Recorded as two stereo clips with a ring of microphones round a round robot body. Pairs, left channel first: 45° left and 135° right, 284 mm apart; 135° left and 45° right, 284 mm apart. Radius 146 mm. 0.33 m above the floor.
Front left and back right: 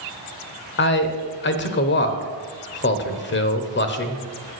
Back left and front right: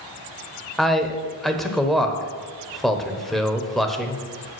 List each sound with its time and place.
0.8 s a man speaking: 45° left, 1.0 m